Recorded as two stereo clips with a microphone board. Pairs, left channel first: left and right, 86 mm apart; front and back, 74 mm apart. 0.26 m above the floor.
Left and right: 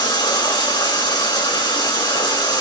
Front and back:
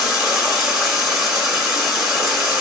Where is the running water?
100° left, 2 m.